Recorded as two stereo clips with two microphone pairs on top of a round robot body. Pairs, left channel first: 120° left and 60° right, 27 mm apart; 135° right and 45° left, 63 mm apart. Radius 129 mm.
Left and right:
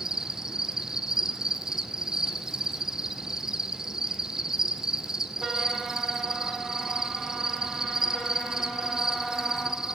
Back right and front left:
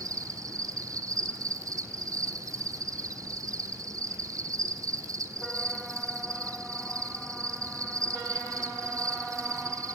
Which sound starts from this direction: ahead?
An insect, at 0.0 s.